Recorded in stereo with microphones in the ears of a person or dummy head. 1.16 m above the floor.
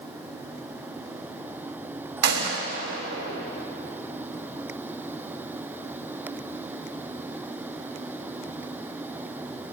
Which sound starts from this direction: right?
A gunshot, at 2.2 s.